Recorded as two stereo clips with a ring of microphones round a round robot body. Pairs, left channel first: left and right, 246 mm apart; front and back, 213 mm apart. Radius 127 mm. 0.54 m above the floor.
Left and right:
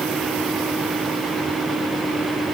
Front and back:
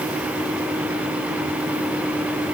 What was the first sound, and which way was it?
Only background noise.